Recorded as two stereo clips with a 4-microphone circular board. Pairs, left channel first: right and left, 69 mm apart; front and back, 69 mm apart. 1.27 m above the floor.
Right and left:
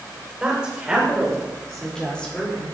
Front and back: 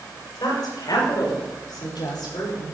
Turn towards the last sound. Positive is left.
turn(degrees=-20)